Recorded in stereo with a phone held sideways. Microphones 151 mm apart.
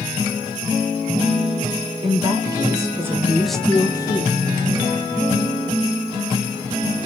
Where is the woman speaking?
35° right (ahead or behind), 1.6 m; by 4.5 s 40° left (ahead or behind), 0.9 m.